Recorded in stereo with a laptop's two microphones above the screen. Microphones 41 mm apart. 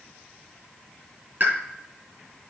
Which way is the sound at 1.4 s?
45° right (ahead or behind).